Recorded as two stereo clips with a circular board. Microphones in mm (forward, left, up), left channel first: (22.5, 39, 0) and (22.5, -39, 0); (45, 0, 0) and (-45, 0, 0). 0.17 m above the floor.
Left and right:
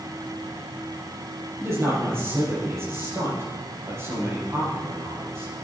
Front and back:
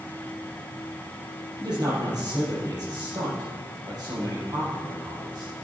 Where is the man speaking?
140° right, 5.5 m.